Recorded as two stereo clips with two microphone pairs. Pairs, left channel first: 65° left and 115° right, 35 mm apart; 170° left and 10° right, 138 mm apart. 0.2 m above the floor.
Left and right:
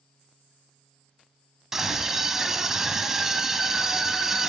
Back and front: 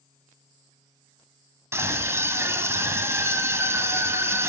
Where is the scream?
55° right, 1.6 m.